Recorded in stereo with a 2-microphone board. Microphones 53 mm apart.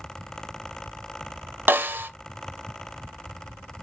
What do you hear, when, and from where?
1.7 s a snare drum: 40° right (ahead or behind), 0.6 m